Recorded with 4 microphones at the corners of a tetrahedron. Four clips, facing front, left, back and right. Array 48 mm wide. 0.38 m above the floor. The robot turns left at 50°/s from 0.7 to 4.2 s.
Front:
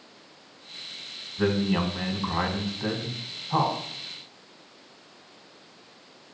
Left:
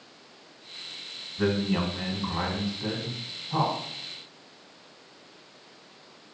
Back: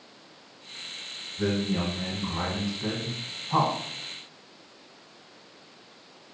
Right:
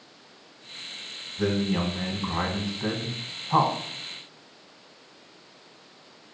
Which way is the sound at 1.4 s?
30° left.